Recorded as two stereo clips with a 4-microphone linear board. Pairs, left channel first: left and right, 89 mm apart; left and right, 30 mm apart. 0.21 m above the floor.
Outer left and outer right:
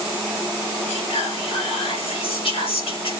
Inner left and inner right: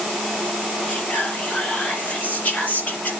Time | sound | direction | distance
0.9 | whispering | 70° left (ahead or behind) | 4 m